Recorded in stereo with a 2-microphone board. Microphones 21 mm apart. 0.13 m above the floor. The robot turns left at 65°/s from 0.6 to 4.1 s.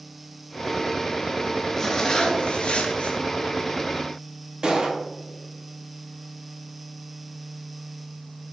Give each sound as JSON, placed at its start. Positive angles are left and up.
{"t": 1.8, "sound": "a zipper", "azimuth_deg": 160, "distance_m": 0.7}
{"t": 4.6, "sound": "a gunshot", "side_deg": -30, "distance_m": 1.0}